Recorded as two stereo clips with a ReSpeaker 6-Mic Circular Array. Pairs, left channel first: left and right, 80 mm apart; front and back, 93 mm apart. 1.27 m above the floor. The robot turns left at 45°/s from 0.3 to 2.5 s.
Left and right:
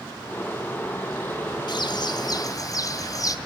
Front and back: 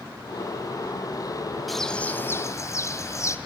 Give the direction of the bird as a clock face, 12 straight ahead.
9 o'clock.